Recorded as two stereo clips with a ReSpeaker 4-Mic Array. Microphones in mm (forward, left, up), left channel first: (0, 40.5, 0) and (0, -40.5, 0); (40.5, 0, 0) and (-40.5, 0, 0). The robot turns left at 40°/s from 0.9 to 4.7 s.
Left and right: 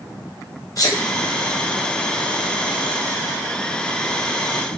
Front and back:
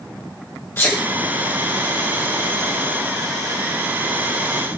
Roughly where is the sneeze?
Ahead left.